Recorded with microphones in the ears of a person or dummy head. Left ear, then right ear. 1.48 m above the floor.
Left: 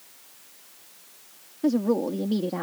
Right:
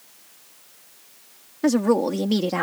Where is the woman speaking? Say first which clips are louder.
Right 4 dB; 60° right (ahead or behind); by 2.6 s 70° right (ahead or behind).